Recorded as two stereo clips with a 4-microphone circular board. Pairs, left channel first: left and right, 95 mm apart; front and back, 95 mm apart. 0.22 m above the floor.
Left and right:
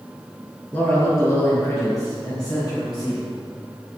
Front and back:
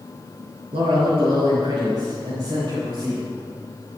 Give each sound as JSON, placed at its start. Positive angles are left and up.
{"t": 0.7, "sound": "a man speaking", "azimuth_deg": 155, "distance_m": 4.0}